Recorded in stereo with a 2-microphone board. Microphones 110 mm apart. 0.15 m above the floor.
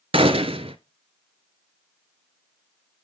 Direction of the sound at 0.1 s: 65° right (ahead or behind).